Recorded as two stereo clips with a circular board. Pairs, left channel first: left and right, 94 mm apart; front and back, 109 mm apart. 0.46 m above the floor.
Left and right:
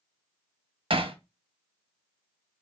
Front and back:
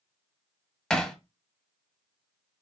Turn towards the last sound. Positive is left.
turn(degrees=-85)